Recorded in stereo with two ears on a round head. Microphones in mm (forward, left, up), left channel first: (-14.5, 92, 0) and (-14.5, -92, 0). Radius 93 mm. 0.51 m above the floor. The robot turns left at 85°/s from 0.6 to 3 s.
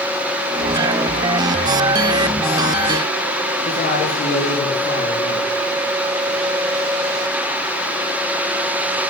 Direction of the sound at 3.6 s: 45° left (ahead or behind).